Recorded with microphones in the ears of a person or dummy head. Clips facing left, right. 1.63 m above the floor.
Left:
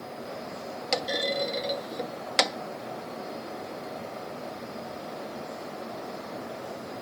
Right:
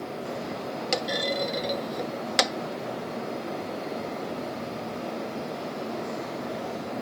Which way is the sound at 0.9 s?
Centre (ahead or behind).